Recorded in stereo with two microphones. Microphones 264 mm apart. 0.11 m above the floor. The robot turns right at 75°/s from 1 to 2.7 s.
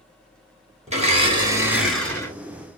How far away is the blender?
About 1.2 m.